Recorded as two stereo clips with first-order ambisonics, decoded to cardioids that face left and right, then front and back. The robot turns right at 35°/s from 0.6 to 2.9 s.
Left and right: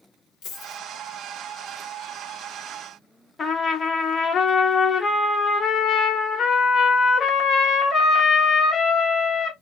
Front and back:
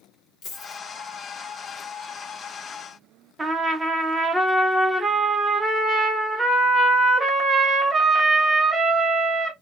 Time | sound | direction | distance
0.4 | a dropped coin | 45° left | 2 m
3.4 | a trumpet | 120° left | 0.6 m